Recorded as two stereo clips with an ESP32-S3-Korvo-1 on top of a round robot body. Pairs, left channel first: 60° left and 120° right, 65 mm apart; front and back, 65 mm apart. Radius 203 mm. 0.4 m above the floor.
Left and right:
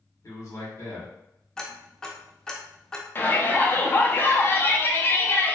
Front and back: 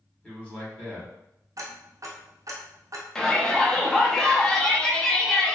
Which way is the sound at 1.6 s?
145° left.